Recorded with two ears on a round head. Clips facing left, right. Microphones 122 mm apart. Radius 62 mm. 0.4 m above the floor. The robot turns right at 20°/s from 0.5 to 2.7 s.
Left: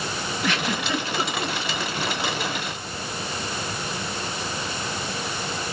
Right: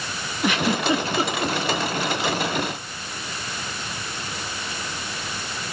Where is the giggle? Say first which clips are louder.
Right 6 dB; 15° right (ahead or behind), 1.4 m; by 1.6 s 20° right (ahead or behind), 1.4 m.